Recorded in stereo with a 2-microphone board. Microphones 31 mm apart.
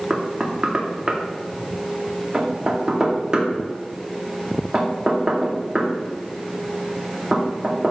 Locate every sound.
0.1 s knocking: 30° right (ahead or behind), 2.0 m